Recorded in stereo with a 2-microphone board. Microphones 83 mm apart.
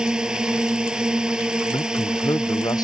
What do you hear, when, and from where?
0.0 s a drone: 10° right (ahead or behind)
1.7 s a man speaking: 55° left (ahead or behind)